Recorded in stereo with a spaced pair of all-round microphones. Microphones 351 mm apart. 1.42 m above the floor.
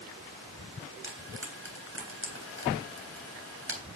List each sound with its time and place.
1.0 s frying: 35° right (ahead or behind), 3.5 m